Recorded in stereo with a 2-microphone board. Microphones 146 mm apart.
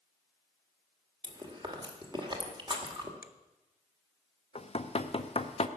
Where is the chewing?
35° right (ahead or behind), 2.0 m.